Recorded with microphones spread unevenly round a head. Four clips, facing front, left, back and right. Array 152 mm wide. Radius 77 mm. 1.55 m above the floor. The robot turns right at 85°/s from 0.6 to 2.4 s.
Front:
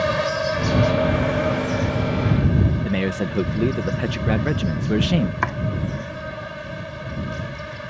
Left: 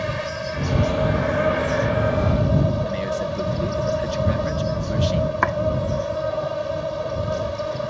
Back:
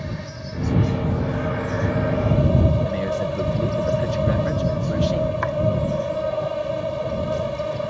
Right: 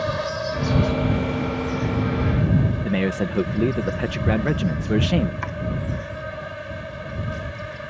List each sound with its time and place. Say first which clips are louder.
0.0 s an insect: right 2 dB, front 12 dB; 10° right; by 7.9 s 145° left
2.8 s a man speaking: right 1 dB, even; 45° right
5.4 s chopping: left 10 dB, back 1 dB; 60° left